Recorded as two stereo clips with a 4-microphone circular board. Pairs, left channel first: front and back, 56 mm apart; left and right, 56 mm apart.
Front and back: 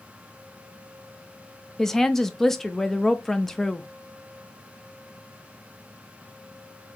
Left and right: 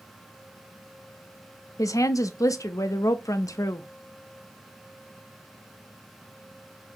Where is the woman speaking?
85° left, 0.6 m.